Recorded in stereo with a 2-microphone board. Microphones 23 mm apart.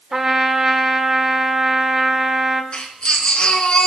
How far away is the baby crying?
About 3.5 m.